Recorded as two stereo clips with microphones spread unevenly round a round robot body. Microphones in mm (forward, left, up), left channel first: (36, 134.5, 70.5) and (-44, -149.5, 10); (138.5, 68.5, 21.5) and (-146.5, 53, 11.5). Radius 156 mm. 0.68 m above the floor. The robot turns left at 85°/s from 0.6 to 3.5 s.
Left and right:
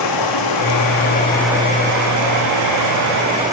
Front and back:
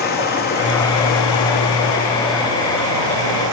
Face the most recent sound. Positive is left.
turn(degrees=175)